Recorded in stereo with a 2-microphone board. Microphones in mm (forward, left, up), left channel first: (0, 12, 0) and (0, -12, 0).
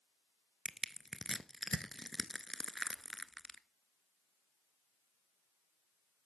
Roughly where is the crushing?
Centre.